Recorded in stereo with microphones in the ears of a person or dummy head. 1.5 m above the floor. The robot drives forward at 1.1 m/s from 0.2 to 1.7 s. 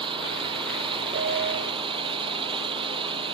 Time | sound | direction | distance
0.0 | an engine running | 25° right (ahead or behind) | ?
1.1 | a piano | 45° right (ahead or behind) | ?